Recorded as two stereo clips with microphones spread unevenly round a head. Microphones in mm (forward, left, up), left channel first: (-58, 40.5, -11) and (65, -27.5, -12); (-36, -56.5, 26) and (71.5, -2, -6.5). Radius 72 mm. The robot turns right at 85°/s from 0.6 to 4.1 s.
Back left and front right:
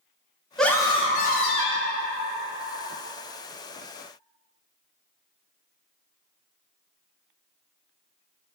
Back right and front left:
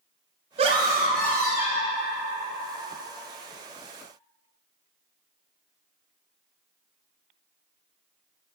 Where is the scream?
65° left, 0.5 m; by 2.0 s 175° right, 0.5 m.